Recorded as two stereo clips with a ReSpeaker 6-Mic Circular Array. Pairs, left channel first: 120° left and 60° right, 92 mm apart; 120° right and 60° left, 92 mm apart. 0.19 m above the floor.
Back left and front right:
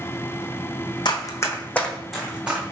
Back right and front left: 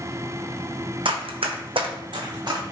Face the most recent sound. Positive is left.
turn(degrees=10)